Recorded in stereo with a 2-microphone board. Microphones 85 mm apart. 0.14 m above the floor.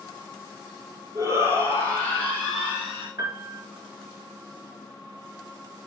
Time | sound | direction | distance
1.1 | a shout | 35° right (ahead or behind) | 3 m
3.2 | a piano | 45° right (ahead or behind) | 2.5 m